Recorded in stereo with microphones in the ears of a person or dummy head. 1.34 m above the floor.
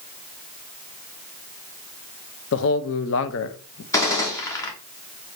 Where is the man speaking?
75° left (ahead or behind), 0.6 m.